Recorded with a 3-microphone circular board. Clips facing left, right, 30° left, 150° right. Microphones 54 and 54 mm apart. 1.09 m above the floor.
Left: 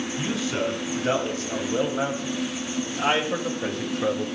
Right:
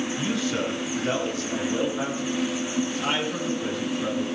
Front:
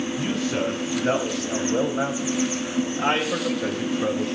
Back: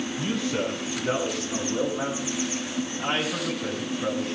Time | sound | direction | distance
0.2 | a man speaking | 15° left | 6 m